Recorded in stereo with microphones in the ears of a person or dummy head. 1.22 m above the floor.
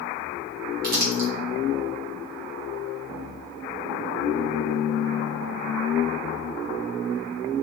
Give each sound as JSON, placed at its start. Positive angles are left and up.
{"t": 0.8, "sound": "crumpling", "side_deg": -45, "distance_m": 1.4}